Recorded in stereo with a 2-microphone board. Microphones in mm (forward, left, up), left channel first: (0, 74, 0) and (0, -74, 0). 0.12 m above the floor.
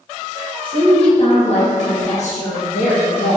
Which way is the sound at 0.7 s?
40° left (ahead or behind).